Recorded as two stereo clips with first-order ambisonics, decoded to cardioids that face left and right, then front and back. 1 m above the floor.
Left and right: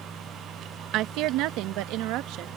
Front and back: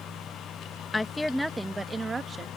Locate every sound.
0.9 s a woman speaking: 75° right; by 2.5 s 115° right